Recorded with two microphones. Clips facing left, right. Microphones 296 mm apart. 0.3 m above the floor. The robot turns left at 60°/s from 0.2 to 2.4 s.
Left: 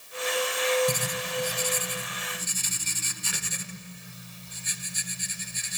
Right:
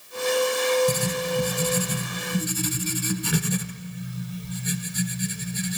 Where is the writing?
20° right, 0.7 m; by 5.8 s 115° right, 0.7 m.